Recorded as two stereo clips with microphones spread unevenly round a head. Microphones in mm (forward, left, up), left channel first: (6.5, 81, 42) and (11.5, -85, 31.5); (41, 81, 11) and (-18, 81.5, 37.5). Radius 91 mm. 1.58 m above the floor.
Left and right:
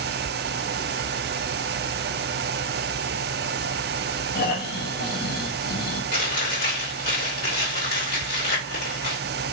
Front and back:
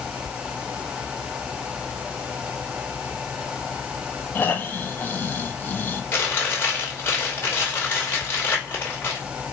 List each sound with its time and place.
4.3 s snoring: 60° left, 1.0 m
6.1 s chewing: 60° left, 2.5 m